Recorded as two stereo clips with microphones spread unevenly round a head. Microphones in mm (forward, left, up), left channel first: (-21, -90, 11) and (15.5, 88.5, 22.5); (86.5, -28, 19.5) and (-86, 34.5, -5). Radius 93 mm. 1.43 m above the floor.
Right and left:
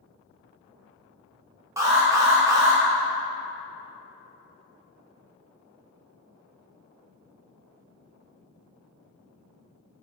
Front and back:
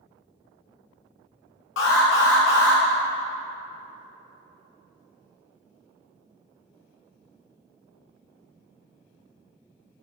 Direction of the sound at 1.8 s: 5° left.